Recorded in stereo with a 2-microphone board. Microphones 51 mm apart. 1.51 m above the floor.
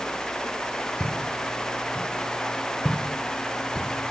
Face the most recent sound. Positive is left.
turn(degrees=15)  # may be behind; listen again after turning